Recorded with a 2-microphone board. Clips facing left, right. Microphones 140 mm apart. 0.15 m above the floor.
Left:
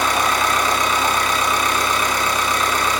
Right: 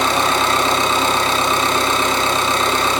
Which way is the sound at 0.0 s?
25° right (ahead or behind).